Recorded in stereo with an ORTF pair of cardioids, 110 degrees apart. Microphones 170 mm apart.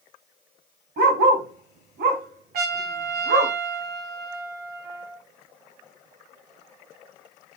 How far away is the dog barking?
About 3 m.